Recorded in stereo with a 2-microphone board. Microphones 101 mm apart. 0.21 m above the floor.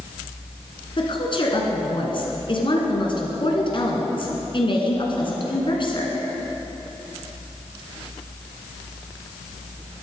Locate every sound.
1.0 s a woman speaking: 50° left (ahead or behind), 2.5 m